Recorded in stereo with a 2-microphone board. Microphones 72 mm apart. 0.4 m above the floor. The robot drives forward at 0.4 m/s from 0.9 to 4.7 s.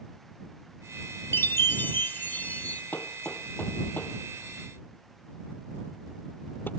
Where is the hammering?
25° left (ahead or behind).